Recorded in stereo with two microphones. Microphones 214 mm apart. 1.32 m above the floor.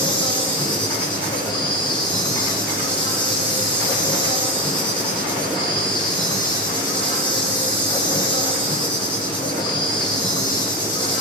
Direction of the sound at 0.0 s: 20° left (ahead or behind).